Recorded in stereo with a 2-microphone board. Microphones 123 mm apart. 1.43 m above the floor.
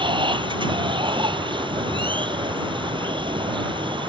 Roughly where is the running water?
Right.